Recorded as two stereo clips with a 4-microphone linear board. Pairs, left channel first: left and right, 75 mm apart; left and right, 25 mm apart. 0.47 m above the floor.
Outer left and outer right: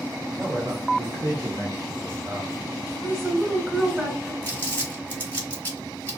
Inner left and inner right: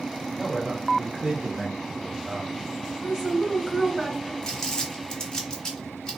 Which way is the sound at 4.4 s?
25° left (ahead or behind).